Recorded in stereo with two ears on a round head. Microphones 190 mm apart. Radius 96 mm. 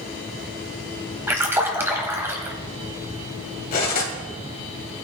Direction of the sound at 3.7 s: 45° left (ahead or behind).